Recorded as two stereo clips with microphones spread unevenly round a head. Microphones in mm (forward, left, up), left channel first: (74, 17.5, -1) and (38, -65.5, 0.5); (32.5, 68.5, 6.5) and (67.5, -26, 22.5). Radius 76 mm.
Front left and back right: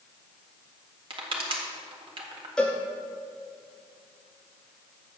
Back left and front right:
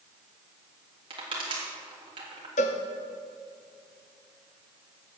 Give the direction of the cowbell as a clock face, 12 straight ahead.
7 o'clock.